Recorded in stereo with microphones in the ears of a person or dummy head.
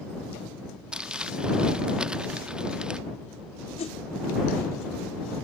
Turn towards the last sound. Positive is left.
turn(degrees=30)  # may be behind; listen again after turning